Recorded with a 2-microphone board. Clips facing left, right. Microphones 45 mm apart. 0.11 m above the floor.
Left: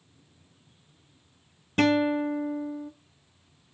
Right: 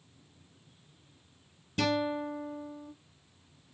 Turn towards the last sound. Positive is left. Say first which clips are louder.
# left 7 dB
turn(degrees=45)  # may be behind; listen again after turning